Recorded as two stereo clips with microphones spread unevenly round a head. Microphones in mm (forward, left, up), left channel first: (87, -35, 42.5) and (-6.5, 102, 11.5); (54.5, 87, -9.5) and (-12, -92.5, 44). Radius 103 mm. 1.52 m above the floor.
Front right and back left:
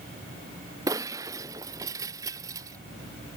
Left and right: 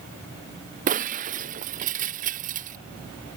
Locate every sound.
0.9 s breaking glass: 160° right